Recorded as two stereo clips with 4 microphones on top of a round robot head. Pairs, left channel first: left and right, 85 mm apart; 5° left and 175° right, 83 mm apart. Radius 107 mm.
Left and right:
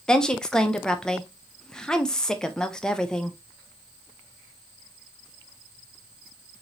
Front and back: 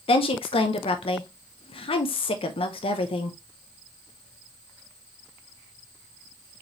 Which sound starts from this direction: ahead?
A woman speaking, at 0.1 s.